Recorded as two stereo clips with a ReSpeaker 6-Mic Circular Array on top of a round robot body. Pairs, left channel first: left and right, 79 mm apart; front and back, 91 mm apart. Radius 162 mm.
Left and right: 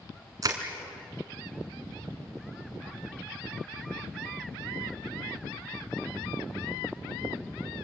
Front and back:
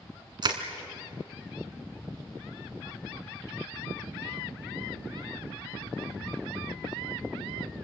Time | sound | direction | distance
0.4 | crushing | 140° right | 2.0 m